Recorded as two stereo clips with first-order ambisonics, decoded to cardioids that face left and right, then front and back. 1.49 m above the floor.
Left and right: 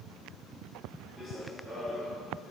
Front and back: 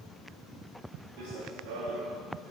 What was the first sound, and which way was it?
Running footsteps, 170° right.